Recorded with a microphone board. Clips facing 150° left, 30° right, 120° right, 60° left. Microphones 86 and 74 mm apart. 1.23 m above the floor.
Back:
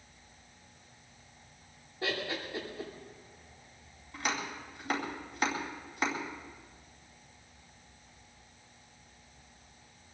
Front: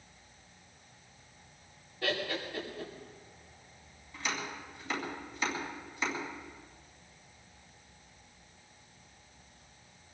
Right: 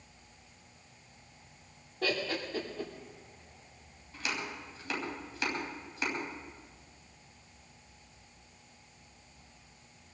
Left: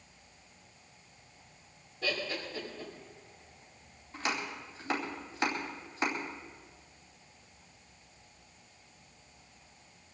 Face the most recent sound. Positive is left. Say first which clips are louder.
# back 2 dB, left 2 dB
turn(degrees=115)